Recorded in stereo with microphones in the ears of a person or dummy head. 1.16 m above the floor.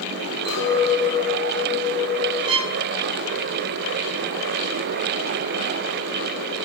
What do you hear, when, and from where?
0.5 s a clink: 60° right (ahead or behind), 4.5 m
2.5 s a violin: 30° right (ahead or behind), 0.8 m